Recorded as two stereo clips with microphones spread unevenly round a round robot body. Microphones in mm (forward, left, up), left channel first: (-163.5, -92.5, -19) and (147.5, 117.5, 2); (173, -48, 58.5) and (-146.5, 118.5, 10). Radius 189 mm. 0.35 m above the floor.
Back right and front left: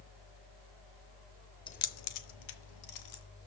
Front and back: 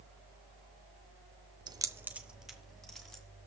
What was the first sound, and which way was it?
Keys jangling, 170° left.